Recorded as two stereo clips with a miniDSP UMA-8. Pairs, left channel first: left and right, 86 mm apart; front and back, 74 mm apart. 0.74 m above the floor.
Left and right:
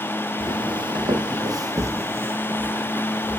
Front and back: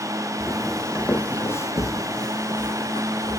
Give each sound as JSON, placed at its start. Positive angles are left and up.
{"t": 0.4, "sound": "footsteps", "azimuth_deg": -95, "distance_m": 1.9}